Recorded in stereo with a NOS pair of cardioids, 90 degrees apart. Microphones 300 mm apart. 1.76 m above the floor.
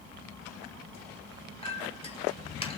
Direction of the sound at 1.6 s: 20° left.